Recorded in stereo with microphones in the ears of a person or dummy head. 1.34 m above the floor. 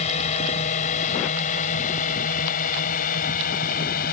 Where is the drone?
35° left (ahead or behind); by 4.1 s 50° left (ahead or behind).